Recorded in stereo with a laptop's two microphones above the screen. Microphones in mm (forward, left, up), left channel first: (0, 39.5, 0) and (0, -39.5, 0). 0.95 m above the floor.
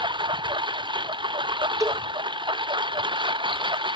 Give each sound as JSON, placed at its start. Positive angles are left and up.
{"t": 0.0, "sound": "a lawn mower", "side_deg": -70}
{"t": 1.8, "sound": "a cowbell", "side_deg": -40}